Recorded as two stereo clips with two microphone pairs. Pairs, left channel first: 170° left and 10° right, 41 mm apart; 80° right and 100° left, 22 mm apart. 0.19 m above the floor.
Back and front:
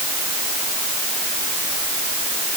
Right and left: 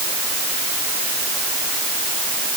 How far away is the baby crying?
I don't hear a baby crying.